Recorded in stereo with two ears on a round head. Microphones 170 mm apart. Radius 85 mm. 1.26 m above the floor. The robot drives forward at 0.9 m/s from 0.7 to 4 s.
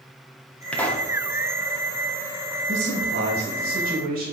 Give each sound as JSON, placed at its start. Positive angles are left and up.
{"t": 0.7, "sound": "a pop", "side_deg": 5, "distance_m": 1.1}
{"t": 2.7, "sound": "a man speaking", "side_deg": -70, "distance_m": 2.0}